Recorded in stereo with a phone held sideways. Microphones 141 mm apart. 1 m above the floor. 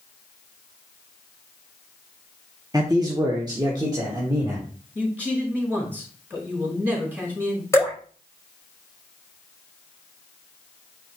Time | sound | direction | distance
2.7 | a man speaking | 25° right (ahead or behind) | 0.7 m
5.0 | a man speaking | 15° right (ahead or behind) | 3 m
7.7 | dripping | 20° left (ahead or behind) | 5 m